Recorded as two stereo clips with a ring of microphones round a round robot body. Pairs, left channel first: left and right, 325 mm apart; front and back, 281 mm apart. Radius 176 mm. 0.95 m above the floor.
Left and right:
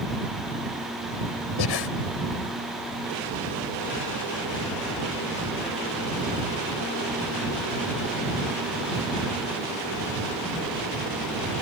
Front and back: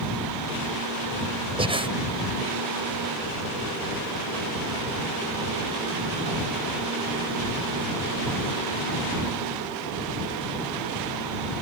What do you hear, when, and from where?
1.6 s breathing: 110° left